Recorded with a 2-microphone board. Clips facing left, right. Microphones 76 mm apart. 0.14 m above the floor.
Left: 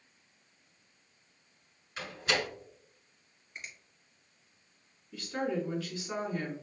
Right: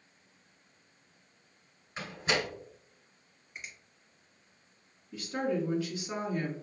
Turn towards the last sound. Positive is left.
turn(degrees=-15)  # may be behind; listen again after turning